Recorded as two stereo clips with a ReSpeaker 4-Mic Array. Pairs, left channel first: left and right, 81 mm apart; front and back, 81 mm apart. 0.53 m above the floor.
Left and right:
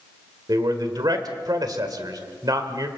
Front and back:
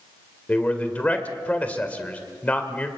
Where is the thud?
I don't hear a thud.